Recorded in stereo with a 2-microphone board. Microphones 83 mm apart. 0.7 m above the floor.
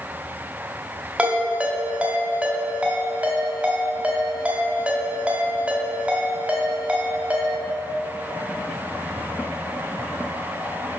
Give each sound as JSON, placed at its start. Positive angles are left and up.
{"t": 1.2, "sound": "a ringtone", "side_deg": -15, "distance_m": 1.7}